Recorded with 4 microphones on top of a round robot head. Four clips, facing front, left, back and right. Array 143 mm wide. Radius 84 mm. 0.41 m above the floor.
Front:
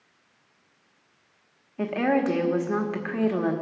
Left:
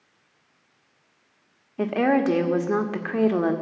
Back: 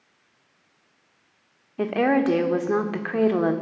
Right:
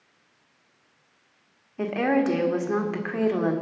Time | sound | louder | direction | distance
1.8 | a woman speaking | left 2 dB, back 3 dB | 140° left | 1.2 m